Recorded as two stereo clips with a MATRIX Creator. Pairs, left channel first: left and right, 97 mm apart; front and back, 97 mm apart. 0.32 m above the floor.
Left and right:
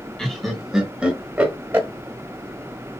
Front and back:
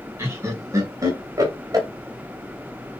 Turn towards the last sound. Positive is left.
turn(degrees=-150)